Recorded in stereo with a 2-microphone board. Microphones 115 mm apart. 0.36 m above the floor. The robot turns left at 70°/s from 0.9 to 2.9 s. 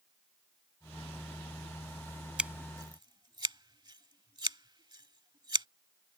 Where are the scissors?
10° right (ahead or behind); by 5.7 s 40° right (ahead or behind).